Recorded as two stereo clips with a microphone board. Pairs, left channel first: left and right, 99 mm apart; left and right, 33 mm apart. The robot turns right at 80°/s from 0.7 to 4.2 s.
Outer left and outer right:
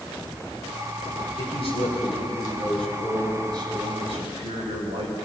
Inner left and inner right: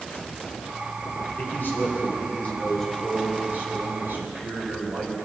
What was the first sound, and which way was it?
A man speaking, 50° left.